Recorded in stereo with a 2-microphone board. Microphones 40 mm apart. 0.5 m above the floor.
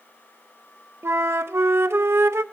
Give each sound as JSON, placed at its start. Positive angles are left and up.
{"t": 1.0, "sound": "a flute", "side_deg": -80, "distance_m": 0.5}